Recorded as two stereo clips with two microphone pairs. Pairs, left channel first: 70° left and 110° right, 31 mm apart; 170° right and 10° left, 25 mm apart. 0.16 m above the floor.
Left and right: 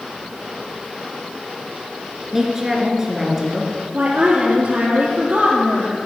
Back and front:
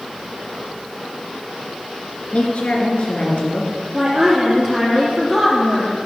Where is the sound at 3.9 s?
70° right, 3 m.